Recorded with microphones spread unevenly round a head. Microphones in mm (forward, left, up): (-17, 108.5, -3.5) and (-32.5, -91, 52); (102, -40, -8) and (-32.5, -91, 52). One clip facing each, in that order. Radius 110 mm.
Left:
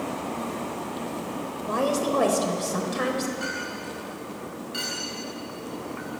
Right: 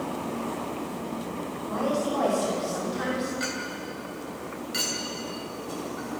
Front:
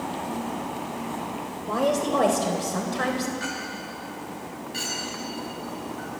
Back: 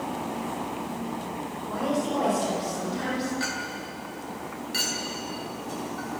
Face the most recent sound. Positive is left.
turn(degrees=-150)